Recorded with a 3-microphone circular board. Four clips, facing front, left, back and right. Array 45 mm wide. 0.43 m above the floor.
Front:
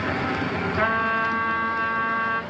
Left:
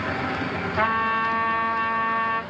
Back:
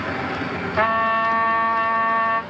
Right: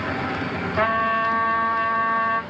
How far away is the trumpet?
About 1.0 m.